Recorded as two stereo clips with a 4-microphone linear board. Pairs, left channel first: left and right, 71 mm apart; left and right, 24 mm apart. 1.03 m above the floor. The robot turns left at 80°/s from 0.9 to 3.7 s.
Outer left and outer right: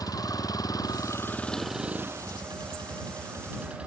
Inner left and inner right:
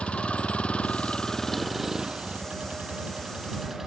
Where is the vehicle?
60° left; by 3.9 s 165° right.